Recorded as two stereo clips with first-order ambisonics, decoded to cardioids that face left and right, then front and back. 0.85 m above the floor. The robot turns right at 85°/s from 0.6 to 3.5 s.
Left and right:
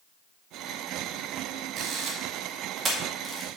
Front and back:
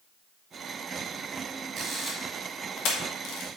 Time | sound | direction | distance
1.8 | a camera shutter | 125° right | 1.7 m